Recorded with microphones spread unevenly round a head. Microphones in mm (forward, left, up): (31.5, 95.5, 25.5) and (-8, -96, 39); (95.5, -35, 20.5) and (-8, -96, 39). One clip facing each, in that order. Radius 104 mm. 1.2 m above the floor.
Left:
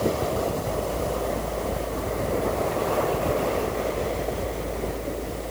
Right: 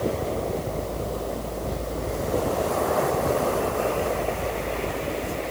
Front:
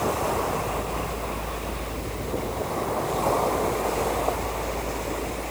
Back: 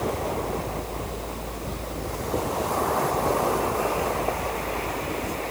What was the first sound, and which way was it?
Only background noise.